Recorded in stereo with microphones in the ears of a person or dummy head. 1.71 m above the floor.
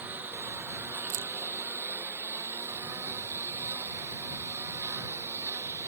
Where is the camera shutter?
65° right (ahead or behind).